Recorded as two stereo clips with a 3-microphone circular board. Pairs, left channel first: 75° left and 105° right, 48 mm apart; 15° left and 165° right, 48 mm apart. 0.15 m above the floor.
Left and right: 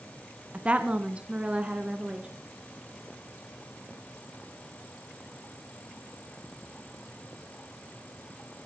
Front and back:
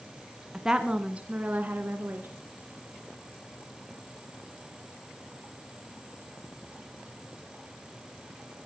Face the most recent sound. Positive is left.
turn(degrees=-165)